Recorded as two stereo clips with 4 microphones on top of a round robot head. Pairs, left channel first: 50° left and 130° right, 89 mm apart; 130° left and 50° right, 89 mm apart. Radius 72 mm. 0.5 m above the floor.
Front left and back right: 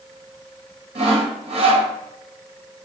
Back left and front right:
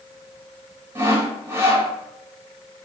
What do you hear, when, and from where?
0.9 s sawing: 120° right, 4 m